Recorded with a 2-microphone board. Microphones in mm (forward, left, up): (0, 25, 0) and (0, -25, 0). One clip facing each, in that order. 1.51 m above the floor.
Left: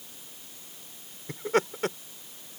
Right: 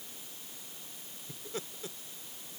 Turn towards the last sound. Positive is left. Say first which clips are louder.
# left 16 dB
turn(degrees=75)  # may be behind; listen again after turning